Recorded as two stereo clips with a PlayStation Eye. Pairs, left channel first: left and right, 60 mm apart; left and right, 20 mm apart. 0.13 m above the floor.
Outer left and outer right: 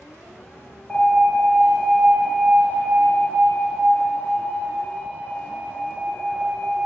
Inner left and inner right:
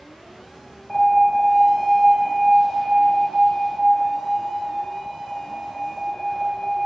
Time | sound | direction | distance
0.9 | an alarm | 30° left (ahead or behind) | 2 m